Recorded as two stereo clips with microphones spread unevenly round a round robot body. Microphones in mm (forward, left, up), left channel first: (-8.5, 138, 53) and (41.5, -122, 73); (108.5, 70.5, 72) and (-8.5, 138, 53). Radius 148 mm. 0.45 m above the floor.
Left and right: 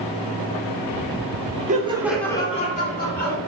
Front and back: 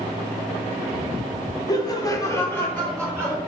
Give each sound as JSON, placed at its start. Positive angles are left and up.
{"t": 1.7, "sound": "laughter", "azimuth_deg": -70, "distance_m": 0.8}